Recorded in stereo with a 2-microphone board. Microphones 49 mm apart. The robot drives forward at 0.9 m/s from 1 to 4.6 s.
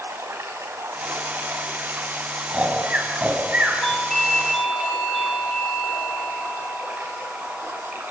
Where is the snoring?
30° right (ahead or behind), 5 m; by 3.7 s 25° right (ahead or behind), 6 m.